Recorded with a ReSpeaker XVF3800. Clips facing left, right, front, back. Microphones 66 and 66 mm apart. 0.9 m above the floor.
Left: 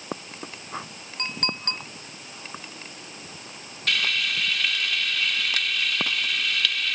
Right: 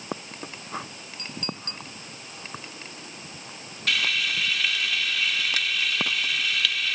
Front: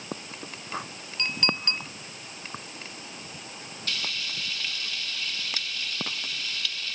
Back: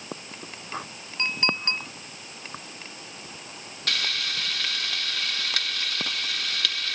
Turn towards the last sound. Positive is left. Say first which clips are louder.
# even, back 5 dB
turn(degrees=180)